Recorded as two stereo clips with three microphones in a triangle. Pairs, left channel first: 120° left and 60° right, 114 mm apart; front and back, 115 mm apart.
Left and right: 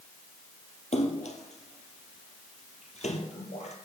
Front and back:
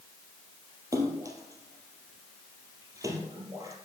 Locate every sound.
0.9 s a splash: 120° left, 2 m